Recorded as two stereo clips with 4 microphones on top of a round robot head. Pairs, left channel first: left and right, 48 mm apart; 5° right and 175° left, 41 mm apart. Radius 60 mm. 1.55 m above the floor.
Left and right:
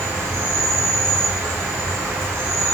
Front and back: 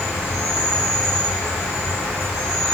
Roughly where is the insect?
Behind right.